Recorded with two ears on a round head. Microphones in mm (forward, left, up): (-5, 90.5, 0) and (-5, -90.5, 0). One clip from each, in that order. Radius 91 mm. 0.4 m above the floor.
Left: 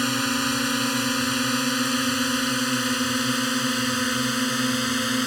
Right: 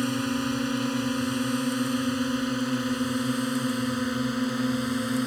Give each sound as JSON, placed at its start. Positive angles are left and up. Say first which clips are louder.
{"t": 0.0, "sound": "a drone", "louder": "left 5 dB", "side_deg": 55}